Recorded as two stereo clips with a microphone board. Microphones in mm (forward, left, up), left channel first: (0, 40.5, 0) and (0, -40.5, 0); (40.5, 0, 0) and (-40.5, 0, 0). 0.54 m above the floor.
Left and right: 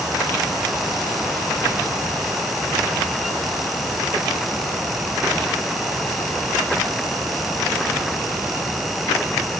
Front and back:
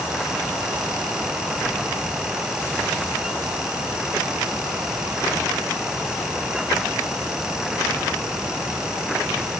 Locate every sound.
Only background noise.